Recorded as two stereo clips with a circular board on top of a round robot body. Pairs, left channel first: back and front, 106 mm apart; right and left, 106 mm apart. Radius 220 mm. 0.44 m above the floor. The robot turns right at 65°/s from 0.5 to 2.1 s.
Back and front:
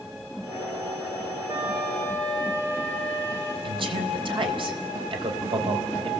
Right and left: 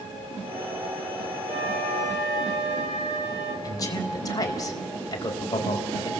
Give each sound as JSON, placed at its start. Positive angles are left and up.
{"t": 1.5, "sound": "a flute", "azimuth_deg": 65, "distance_m": 6.0}
{"t": 3.6, "sound": "a man speaking", "azimuth_deg": -35, "distance_m": 4.5}